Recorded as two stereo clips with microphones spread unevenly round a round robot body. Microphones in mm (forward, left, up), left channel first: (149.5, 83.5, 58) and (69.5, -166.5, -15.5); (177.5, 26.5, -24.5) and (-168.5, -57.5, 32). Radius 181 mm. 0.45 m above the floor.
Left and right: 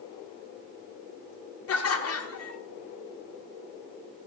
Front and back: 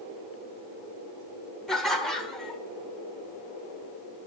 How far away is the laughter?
About 1.1 m.